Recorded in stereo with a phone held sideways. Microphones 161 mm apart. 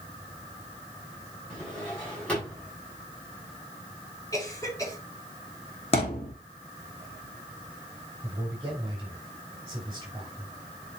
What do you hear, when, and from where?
1.5 s a drawer: 5° left (ahead or behind), 6 m
4.3 s a cough: 20° left (ahead or behind), 5.5 m
5.9 s a thud: 35° left (ahead or behind), 3 m
8.2 s a man speaking: 20° right (ahead or behind), 5.5 m